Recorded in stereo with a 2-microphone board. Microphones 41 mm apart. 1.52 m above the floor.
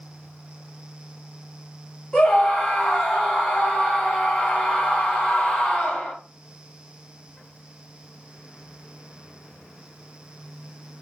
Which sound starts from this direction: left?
A scream, at 2.1 s.